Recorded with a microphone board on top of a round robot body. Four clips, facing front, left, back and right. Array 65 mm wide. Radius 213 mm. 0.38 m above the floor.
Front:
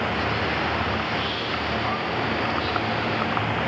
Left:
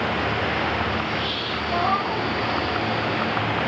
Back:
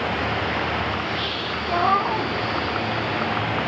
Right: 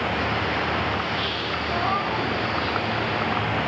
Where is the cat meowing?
170° left, 0.6 m.